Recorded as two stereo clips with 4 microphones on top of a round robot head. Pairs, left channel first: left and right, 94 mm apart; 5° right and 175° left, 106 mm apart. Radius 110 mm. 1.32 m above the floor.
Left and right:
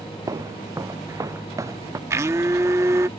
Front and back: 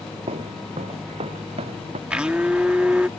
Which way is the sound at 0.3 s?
145° right.